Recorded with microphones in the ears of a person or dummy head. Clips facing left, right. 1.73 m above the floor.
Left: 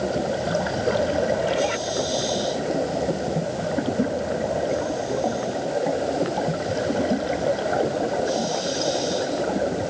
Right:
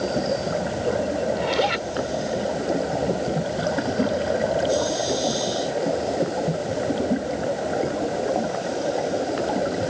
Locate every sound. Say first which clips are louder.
1.4 s a zipper: even; 70° right (ahead or behind)